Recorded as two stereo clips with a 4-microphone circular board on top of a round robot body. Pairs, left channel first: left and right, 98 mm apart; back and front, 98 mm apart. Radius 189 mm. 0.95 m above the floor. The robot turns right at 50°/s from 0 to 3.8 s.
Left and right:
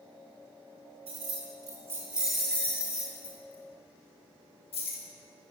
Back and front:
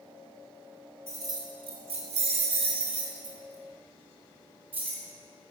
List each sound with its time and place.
1.1 s keys jangling: 65° right, 1.0 m; by 5.0 s 70° left, 1.0 m